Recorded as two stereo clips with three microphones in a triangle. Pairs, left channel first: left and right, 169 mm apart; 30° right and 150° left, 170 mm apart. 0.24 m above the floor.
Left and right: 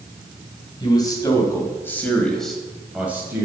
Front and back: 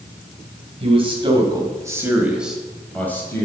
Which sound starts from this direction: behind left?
A man speaking, at 0.8 s.